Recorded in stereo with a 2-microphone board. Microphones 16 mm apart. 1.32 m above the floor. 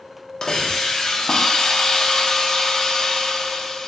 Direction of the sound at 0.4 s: 45° left (ahead or behind).